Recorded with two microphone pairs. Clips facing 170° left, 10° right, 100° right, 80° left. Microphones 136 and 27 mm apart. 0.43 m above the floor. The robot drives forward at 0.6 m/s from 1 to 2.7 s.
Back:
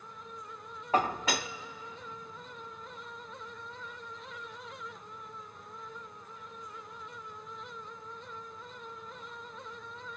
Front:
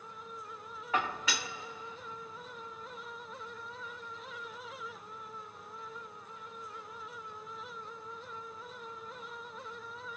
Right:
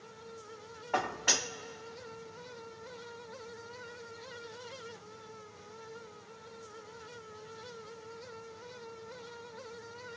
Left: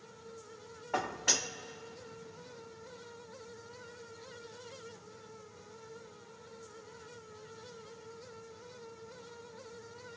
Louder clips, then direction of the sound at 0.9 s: Back 5 dB, right 2 dB; 175° right.